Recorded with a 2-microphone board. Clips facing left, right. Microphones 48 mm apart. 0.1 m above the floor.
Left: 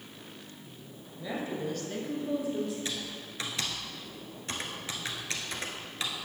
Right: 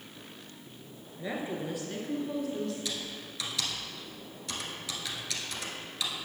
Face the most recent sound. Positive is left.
turn(degrees=35)  # may be behind; listen again after turning